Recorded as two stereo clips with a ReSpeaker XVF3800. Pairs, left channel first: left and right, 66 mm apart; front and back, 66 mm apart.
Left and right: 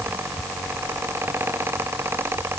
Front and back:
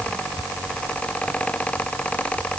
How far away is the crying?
I don't hear crying.